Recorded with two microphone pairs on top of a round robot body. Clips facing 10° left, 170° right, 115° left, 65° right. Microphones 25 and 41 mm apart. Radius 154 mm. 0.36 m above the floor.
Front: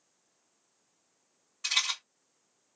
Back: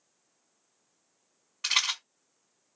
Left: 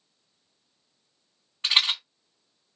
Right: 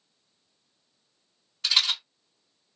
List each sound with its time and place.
1.6 s a rattle: 170° left, 1.9 m